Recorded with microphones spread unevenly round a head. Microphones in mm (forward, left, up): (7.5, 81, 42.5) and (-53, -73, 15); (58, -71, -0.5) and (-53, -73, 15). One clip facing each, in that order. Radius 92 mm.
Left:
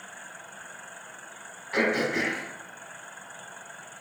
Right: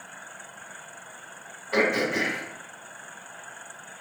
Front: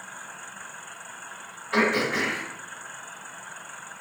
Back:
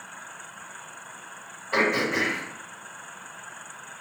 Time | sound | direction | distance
1.7 | throat clearing | 125° right | 2.5 m